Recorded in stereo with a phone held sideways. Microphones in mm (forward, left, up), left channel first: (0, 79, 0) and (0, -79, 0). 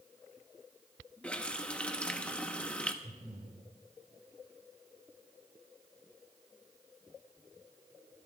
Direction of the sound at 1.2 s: 10° left (ahead or behind).